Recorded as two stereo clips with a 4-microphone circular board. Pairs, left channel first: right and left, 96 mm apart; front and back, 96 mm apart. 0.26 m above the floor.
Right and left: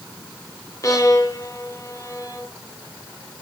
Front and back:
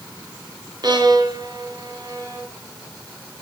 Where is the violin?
140° right, 1.9 m.